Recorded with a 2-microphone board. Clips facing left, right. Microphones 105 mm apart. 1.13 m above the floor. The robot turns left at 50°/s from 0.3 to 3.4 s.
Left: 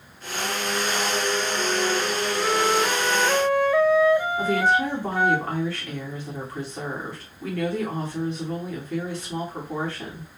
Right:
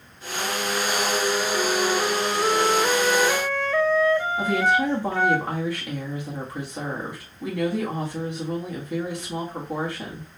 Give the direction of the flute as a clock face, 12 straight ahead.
3 o'clock.